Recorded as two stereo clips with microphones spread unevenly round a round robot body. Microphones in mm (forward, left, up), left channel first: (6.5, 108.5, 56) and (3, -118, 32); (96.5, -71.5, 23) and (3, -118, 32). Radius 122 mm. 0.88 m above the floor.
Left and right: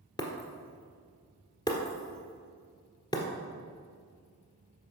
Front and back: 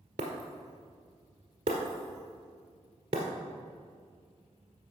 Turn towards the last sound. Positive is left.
turn(degrees=155)